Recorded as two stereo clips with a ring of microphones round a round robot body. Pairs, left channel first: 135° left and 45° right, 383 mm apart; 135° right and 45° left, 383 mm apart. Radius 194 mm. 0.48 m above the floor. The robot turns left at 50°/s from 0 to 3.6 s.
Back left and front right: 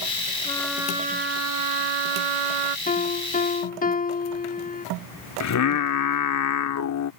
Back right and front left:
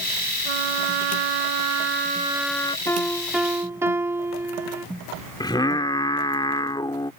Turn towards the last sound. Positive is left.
turn(degrees=150)